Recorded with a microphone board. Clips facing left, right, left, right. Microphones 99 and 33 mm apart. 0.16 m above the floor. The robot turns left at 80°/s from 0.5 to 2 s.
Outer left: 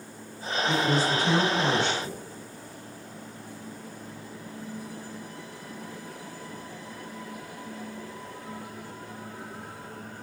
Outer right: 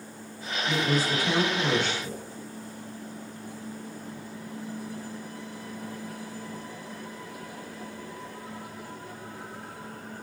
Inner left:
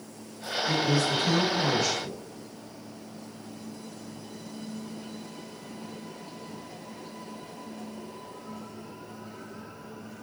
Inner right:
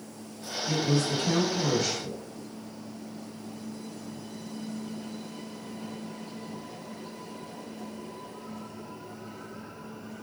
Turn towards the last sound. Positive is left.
turn(degrees=45)